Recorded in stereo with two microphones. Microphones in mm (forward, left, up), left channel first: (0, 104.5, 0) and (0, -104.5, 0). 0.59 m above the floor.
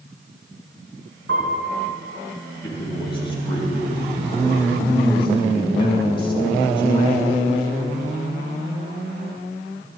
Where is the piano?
80° right, 5 m.